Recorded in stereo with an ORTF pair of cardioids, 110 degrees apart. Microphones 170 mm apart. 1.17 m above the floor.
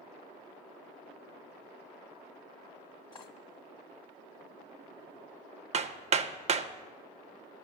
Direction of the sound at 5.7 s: 45° right.